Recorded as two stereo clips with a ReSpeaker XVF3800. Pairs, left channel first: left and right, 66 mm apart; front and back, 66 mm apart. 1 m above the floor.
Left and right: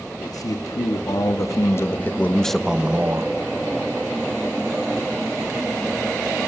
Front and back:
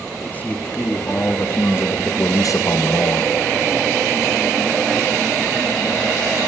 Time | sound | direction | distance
0.2 | a man speaking | 60° left | 2.5 m